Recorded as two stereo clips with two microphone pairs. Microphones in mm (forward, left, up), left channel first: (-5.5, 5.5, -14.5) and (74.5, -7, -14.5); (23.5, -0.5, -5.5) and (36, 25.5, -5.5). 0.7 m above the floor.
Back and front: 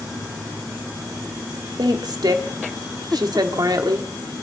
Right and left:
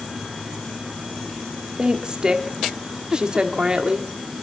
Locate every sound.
1.8 s a woman speaking: 10° left, 1.5 m